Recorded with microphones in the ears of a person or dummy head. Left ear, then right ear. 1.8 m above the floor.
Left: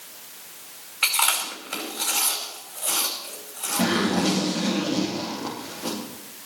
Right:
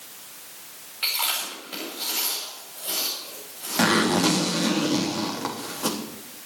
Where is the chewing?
40° left (ahead or behind), 5.5 m.